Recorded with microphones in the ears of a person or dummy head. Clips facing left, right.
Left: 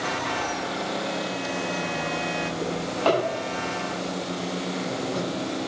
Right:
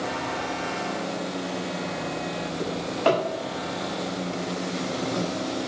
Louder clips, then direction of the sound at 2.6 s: Right 2 dB; 20° right (ahead or behind).